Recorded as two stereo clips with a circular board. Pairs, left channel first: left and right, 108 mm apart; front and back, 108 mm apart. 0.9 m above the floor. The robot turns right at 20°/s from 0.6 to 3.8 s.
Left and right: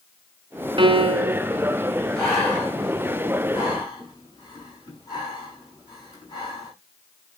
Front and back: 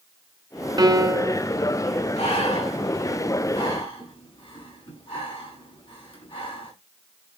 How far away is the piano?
About 0.9 m.